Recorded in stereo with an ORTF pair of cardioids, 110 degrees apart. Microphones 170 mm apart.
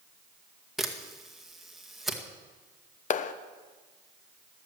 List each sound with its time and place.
0.8 s a camera shutter: straight ahead, 2.0 m
3.1 s a clap: 50° left, 0.8 m